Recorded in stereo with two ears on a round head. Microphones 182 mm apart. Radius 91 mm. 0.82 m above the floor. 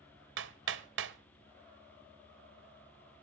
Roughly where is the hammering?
Right.